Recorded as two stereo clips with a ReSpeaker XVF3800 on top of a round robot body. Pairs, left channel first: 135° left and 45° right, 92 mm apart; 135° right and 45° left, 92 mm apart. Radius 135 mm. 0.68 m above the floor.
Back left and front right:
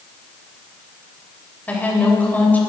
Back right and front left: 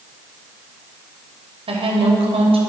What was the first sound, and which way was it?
A woman speaking, 60° left.